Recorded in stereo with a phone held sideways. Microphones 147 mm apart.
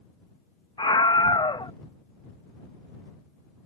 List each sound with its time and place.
0.8 s a scream: 35° left (ahead or behind)